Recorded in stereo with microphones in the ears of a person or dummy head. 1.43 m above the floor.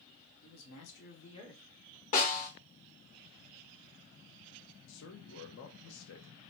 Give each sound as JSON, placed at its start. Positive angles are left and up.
{"t": 0.4, "sound": "a man speaking", "side_deg": 85, "distance_m": 1.2}
{"t": 2.1, "sound": "a snare drum", "side_deg": 35, "distance_m": 0.9}
{"t": 4.9, "sound": "a man speaking", "side_deg": 60, "distance_m": 0.7}